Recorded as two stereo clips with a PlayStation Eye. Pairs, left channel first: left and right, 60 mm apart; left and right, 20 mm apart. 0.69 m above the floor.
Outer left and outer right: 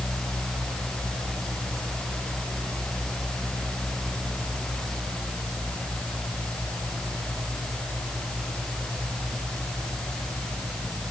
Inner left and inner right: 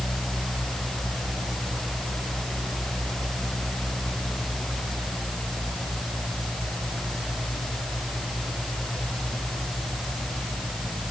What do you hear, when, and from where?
Only background noise.